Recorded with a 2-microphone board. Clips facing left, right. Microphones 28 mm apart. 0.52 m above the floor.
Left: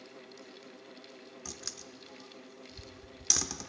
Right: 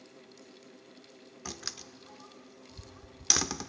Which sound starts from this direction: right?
A door slam, at 1.4 s.